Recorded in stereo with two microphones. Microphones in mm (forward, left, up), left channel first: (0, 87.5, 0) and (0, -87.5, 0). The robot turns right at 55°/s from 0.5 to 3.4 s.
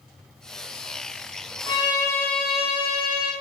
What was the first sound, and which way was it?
A violin, 135° left.